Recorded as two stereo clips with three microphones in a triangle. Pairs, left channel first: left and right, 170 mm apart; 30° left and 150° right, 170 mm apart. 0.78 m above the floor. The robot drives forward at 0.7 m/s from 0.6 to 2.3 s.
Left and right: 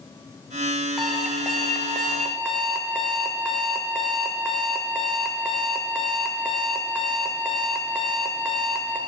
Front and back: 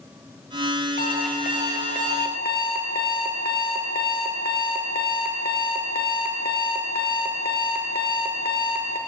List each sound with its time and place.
1.0 s an alarm clock: straight ahead, 2 m